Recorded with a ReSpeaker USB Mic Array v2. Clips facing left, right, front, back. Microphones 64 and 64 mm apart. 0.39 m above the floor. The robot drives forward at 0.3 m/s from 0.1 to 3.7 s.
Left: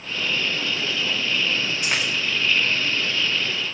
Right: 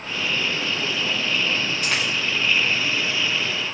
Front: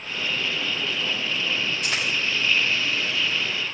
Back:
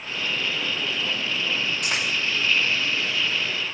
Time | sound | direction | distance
1.8 | a dropped coin | 165° left | 4.5 m